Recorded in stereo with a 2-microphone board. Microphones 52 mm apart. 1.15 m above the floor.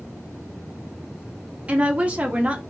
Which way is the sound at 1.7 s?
25° right (ahead or behind).